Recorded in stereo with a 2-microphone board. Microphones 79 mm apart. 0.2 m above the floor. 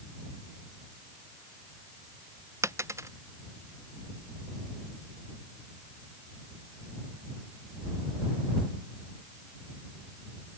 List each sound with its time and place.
2.6 s a dropped coin: 35° right (ahead or behind)